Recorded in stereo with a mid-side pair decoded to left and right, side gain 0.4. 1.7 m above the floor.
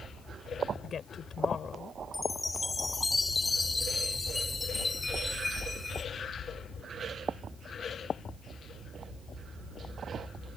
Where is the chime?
25° left.